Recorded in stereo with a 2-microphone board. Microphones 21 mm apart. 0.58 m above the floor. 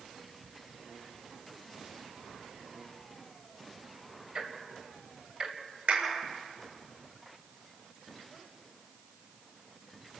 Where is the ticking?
50° right (ahead or behind), 2.5 m.